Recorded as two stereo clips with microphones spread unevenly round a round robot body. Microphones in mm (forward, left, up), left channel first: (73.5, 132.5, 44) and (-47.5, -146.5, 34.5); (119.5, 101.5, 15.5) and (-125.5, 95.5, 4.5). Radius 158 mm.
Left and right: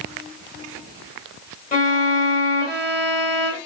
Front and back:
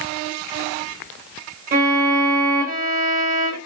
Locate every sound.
1.7 s a violin: 130° left, 1.2 m